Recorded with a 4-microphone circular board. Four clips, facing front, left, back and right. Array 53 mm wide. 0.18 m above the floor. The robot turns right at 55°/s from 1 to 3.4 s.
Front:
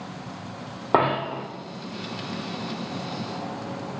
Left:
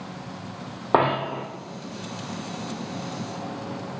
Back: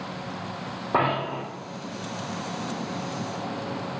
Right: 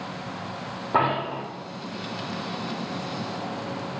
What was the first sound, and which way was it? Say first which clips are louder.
A dropped coin: left 2 dB, front 2 dB; 40° left.